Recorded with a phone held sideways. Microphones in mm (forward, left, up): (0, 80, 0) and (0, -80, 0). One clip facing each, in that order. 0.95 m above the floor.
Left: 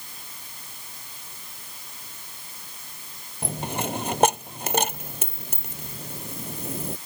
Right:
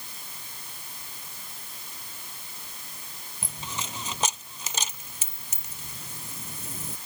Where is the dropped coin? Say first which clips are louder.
Left 10 dB; 60° left (ahead or behind).